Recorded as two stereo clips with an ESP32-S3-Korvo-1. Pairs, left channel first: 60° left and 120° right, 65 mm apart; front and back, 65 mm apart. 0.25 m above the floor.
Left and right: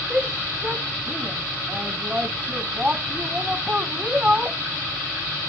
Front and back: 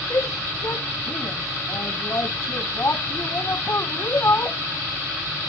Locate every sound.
0.1 s a shout: 40° right; by 4.6 s 50° right